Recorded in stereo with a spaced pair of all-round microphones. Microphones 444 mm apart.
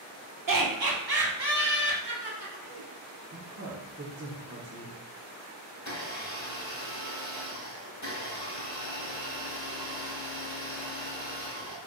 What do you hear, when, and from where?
0.5 s laughter: 45° right (ahead or behind), 0.7 m; by 2.9 s 65° right (ahead or behind), 2 m
3.3 s a woman speaking: 30° right (ahead or behind), 0.7 m
5.8 s a blender: 40° left (ahead or behind), 0.9 m